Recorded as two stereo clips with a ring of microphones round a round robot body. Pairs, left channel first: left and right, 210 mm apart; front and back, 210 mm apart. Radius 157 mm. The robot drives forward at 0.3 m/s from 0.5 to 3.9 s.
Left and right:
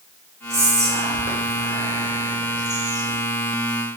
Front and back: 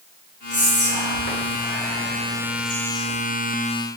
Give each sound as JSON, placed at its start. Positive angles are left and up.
{"t": 0.5, "sound": "whispering", "azimuth_deg": -15, "distance_m": 1.9}